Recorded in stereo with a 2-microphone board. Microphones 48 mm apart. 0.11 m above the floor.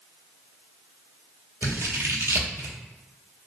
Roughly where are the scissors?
Right.